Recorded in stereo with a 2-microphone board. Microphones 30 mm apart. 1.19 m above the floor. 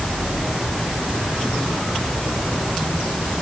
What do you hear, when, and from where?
Only background noise.